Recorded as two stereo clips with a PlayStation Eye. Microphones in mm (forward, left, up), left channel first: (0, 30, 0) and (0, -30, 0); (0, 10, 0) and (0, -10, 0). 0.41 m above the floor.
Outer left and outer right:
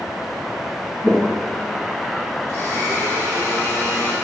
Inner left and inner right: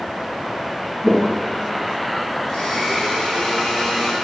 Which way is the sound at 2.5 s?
40° left (ahead or behind).